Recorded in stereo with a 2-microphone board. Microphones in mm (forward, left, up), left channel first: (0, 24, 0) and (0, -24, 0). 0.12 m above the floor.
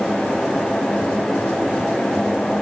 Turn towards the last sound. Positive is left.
No sound to turn to.